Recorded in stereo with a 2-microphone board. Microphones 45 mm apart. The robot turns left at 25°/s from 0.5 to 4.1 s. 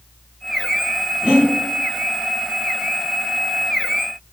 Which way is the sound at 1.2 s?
20° right (ahead or behind).